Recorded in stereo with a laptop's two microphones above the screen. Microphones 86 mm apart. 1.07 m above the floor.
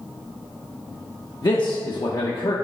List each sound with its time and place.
1.4 s a man speaking: 55° left (ahead or behind), 1.1 m